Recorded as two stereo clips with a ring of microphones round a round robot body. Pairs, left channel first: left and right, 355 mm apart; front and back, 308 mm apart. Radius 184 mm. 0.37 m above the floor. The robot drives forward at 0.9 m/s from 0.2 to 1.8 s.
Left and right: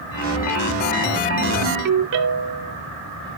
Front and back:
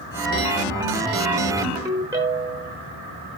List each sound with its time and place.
1.6 s a ringtone: 90° right, 1.0 m; by 2.7 s 105° right, 1.1 m